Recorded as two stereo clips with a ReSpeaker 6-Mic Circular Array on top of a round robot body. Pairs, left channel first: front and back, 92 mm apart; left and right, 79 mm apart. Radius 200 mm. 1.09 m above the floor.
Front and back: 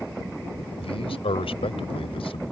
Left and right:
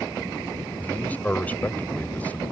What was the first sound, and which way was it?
A man speaking, 20° left.